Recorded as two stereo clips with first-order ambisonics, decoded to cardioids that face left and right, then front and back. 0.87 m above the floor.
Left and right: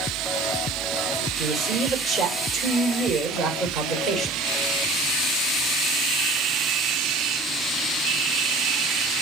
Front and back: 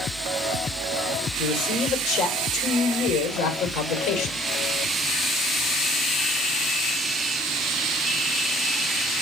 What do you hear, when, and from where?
1.4 s a man speaking: 35° right, 4 m